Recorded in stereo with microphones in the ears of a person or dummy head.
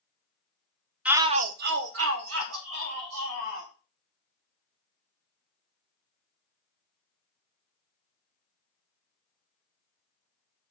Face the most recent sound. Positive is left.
turn(degrees=-80)